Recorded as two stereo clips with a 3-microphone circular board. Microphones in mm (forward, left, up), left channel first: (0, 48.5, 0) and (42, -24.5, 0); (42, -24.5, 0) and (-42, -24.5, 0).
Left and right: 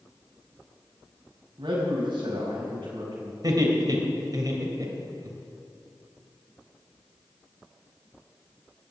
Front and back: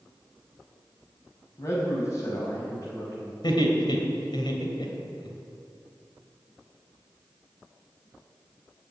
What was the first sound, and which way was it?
A man speaking, 45° right.